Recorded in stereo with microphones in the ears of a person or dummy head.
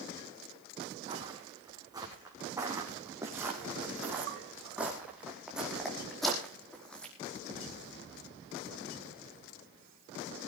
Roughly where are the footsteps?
Centre.